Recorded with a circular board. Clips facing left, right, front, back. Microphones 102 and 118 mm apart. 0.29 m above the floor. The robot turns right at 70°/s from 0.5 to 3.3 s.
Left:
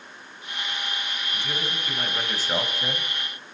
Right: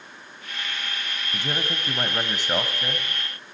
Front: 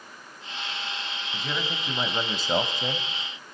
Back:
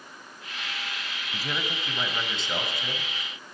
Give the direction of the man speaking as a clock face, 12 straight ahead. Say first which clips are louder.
Right 4 dB, even; 3 o'clock.